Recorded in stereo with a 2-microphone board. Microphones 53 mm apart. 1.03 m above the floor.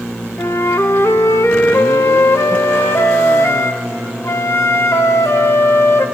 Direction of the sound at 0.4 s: 65° left (ahead or behind).